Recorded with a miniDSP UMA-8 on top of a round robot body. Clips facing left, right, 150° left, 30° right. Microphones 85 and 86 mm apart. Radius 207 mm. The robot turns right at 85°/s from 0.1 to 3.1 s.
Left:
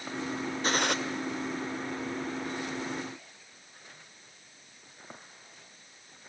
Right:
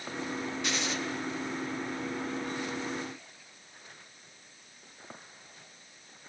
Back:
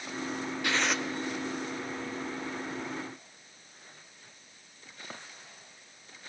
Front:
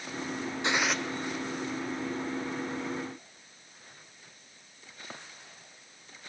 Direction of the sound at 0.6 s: 35° left.